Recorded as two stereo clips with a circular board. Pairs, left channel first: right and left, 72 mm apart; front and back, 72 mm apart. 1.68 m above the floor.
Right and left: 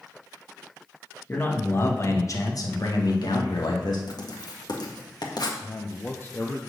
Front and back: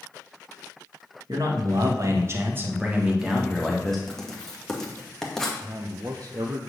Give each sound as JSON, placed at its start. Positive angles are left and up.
{"t": 1.3, "sound": "a man speaking", "azimuth_deg": -155, "distance_m": 2.0}
{"t": 4.1, "sound": "writing", "azimuth_deg": -80, "distance_m": 1.7}
{"t": 5.6, "sound": "a man speaking", "azimuth_deg": -150, "distance_m": 0.9}